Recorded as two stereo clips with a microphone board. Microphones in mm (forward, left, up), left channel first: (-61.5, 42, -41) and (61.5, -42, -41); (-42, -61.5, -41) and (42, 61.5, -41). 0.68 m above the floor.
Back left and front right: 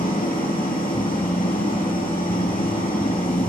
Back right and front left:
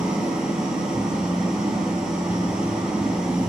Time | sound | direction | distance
0.0 | an engine running | 140° left | 3.5 m